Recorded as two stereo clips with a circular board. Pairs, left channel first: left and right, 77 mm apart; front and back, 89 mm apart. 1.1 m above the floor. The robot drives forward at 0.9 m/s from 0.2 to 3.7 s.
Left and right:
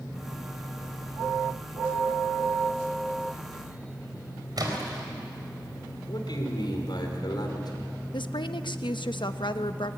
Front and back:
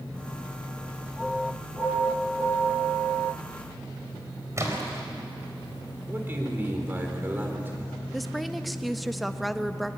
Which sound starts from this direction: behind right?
A splash, at 4.6 s.